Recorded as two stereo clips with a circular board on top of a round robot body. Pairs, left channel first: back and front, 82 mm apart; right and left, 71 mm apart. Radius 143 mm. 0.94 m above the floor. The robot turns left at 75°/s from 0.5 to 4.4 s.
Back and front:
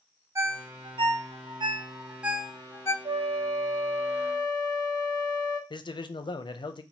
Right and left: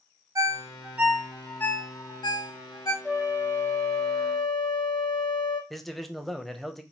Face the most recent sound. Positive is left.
turn(degrees=-175)